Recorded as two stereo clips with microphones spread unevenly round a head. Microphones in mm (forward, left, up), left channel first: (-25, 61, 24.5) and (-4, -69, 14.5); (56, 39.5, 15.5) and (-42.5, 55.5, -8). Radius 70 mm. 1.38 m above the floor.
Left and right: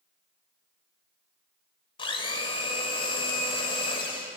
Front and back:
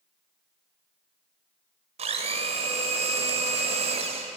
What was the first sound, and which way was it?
A blender, 150° left.